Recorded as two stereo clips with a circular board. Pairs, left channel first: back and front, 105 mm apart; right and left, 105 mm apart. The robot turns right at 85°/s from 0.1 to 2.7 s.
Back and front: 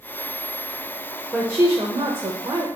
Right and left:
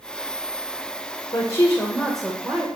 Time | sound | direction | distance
1.3 | a woman speaking | 70° right | 1.3 m